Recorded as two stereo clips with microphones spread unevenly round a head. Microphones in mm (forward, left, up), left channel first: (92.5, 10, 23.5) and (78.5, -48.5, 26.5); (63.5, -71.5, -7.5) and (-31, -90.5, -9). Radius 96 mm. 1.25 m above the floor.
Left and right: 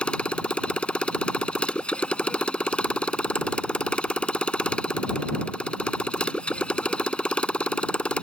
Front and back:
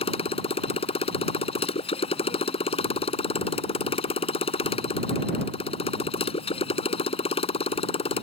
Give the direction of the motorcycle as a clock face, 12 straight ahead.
12 o'clock.